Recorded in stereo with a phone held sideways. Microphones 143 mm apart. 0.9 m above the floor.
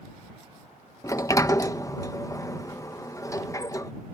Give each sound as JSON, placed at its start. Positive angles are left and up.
{"t": 1.0, "sound": "a sliding door", "side_deg": 20}